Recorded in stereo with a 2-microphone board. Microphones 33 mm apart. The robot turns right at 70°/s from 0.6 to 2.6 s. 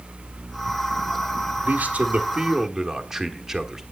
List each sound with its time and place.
1.6 s a man speaking: 80° right, 1.3 m; by 3.8 s 15° right, 1.3 m